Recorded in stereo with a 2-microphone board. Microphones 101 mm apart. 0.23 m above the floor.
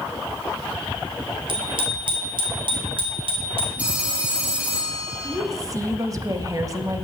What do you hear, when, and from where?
1.5 s a bicycle bell: 50° right (ahead or behind), 3.5 m; by 3.7 s 55° right (ahead or behind), 5 m
3.8 s a phone ringing: 15° right (ahead or behind), 6 m
5.2 s a woman speaking: 35° right (ahead or behind), 1.5 m